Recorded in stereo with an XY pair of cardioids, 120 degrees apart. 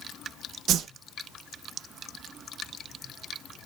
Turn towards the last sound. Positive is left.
turn(degrees=-60)